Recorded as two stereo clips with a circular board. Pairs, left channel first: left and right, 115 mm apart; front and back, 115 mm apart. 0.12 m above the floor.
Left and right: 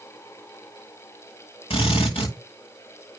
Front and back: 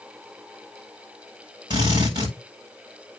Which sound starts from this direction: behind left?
A drill, at 1.7 s.